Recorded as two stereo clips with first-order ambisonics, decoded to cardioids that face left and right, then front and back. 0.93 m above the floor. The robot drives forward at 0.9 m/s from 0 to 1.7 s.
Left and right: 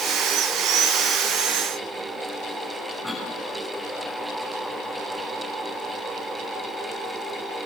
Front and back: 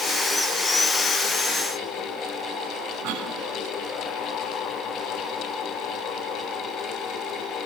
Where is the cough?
Straight behind, 5 m.